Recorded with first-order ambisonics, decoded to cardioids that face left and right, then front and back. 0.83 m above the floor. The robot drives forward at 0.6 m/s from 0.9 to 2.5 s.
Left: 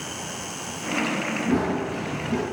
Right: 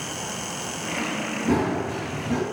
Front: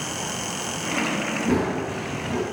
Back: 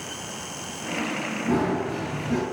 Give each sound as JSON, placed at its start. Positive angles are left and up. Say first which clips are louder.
{"t": 1.5, "sound": "running footsteps", "louder": "right 4 dB, back 3 dB", "azimuth_deg": -50, "distance_m": 1.0}